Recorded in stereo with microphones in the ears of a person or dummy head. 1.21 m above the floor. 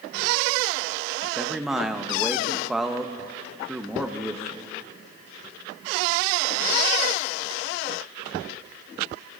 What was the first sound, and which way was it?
A man speaking, centre (ahead or behind).